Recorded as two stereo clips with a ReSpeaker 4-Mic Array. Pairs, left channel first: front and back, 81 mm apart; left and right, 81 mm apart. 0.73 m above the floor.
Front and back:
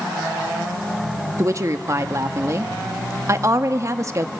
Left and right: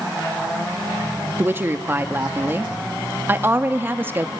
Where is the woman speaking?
145° right, 0.9 m.